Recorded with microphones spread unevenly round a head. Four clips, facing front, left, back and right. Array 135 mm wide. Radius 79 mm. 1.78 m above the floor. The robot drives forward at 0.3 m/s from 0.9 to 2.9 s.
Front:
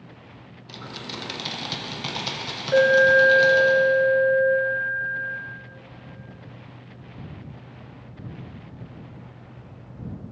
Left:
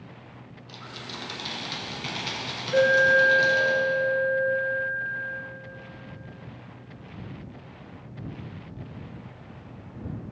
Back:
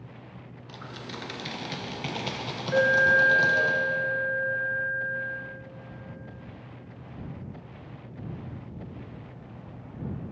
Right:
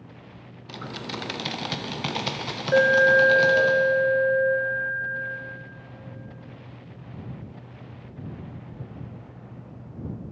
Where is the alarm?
60° right, 1.8 m; by 5.4 s 65° right, 1.8 m.